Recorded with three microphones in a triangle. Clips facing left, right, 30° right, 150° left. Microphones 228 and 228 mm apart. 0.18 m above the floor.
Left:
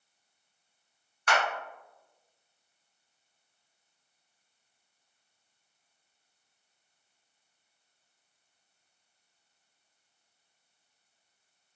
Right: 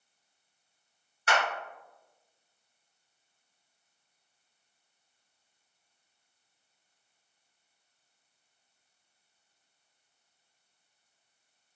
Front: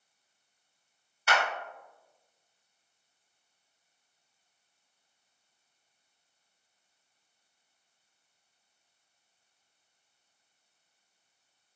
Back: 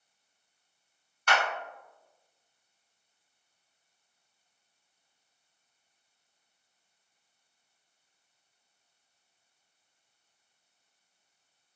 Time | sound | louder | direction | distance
1.3 | a clap | even, even | 105° right | 1.5 m